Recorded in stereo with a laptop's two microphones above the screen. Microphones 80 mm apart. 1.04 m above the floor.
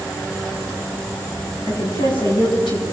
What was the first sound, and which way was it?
A woman speaking, 85° left.